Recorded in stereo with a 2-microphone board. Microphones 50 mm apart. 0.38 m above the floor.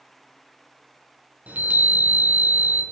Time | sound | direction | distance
1.5 | a chime | 35° right (ahead or behind) | 0.7 m